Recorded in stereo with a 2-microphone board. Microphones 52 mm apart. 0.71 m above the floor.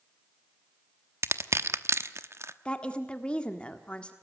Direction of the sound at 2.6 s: 20° left (ahead or behind).